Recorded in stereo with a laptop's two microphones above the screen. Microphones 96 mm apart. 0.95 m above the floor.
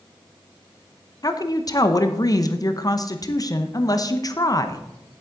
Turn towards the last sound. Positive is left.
turn(degrees=40)  # may be behind; listen again after turning